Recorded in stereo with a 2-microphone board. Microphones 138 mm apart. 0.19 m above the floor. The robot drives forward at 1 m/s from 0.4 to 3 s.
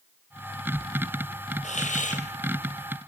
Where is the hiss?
65° left (ahead or behind), 2 m; by 2.2 s 80° left, 2 m.